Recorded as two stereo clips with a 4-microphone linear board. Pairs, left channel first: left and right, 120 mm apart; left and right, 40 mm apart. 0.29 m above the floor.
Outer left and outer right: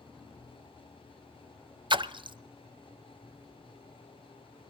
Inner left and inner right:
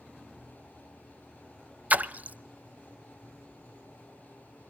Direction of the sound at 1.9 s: 45° right (ahead or behind).